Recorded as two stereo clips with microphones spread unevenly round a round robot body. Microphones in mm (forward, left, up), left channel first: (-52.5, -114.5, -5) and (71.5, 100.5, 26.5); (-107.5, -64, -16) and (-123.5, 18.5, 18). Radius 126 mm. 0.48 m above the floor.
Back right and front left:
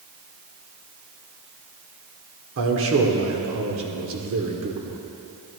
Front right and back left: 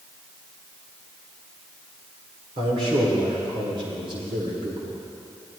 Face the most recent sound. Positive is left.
turn(degrees=60)